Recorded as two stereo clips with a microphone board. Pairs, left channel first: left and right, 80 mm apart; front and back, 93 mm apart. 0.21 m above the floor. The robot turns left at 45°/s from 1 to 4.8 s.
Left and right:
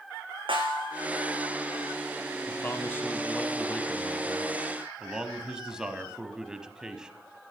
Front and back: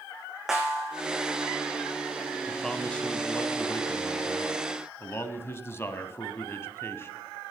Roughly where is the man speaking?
Left.